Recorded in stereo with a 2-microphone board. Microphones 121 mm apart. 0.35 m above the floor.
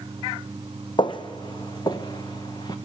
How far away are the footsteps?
About 0.9 m.